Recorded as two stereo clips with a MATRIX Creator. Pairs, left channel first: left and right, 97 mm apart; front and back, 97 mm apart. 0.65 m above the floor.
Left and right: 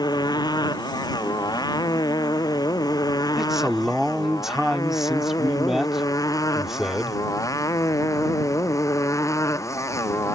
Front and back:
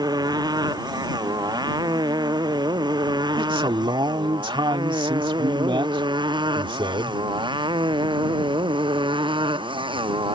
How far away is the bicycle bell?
I don't hear a bicycle bell.